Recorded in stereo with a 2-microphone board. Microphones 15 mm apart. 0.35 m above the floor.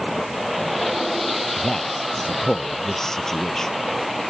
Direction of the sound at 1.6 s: 35° left (ahead or behind).